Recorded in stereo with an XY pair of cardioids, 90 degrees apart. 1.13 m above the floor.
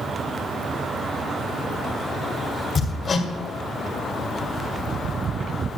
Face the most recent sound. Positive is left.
turn(degrees=65)